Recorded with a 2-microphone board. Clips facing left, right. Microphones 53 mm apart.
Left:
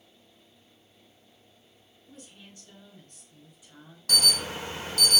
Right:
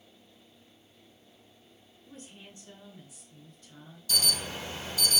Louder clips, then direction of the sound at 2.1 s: Right 1 dB; 35° right (ahead or behind).